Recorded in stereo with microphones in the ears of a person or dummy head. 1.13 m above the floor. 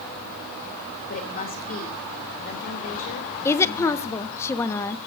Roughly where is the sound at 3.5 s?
Centre.